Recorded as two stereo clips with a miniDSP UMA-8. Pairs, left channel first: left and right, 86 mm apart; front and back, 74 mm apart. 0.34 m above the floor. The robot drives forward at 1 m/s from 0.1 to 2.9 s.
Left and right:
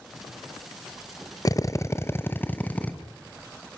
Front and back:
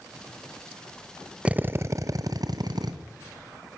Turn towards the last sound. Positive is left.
turn(degrees=160)